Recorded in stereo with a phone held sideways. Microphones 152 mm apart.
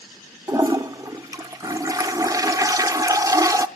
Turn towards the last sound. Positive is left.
turn(degrees=-25)  # may be behind; listen again after turning